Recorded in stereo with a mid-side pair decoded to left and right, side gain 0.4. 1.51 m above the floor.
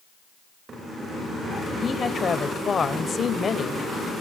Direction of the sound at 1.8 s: 45° left.